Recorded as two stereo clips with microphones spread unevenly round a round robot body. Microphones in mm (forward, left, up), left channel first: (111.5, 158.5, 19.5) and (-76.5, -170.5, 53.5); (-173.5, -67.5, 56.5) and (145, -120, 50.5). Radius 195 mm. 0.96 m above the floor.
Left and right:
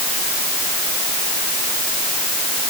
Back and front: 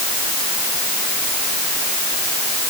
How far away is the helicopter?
I don't hear a helicopter.